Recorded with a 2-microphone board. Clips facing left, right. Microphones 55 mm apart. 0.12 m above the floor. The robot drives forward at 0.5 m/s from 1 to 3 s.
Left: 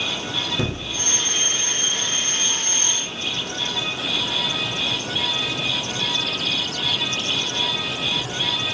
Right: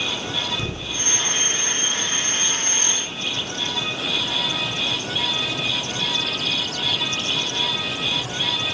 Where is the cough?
I don't hear a cough.